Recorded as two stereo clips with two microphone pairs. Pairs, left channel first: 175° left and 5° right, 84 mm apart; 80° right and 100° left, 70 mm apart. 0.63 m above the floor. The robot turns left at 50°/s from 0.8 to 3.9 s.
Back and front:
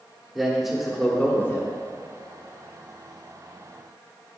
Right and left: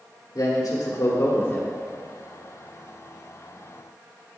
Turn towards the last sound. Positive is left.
turn(degrees=110)